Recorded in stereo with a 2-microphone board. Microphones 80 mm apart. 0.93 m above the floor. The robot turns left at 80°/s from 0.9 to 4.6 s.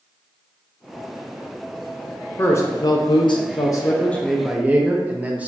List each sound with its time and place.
2.4 s a man speaking: 155° left, 0.5 m; by 5.5 s 20° right, 0.5 m